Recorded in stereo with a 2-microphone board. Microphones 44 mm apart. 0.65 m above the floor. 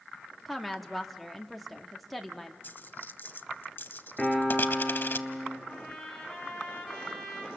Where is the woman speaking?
Centre (ahead or behind), 1.3 m.